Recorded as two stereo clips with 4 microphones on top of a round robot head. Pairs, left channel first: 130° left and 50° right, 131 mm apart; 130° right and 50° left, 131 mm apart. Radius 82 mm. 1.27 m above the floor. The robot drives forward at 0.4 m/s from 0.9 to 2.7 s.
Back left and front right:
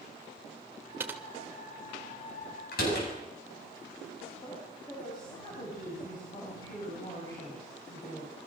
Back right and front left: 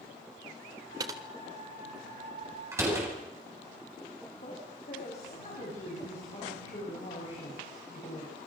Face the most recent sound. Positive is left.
turn(degrees=-175)